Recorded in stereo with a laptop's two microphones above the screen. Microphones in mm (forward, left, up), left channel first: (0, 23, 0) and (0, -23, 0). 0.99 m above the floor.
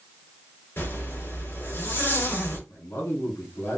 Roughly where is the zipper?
Left.